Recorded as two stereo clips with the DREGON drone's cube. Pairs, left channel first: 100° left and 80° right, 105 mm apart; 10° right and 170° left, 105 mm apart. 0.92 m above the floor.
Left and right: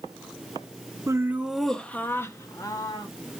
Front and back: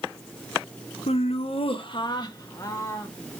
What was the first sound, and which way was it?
Laughter, 20° right.